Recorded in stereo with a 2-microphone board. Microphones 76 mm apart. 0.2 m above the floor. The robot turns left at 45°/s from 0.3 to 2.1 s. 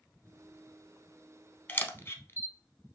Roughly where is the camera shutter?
Left.